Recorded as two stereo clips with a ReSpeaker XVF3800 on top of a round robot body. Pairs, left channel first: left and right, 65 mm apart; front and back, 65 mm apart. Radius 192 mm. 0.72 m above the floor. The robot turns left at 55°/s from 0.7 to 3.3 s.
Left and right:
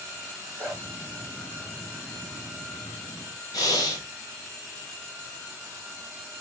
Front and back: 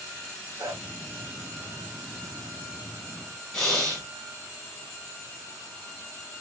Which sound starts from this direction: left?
Breathing, at 3.5 s.